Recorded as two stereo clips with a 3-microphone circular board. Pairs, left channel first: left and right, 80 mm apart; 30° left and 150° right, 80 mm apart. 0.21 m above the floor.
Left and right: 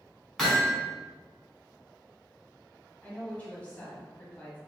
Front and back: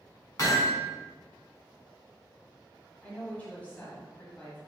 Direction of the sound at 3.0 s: 60° left.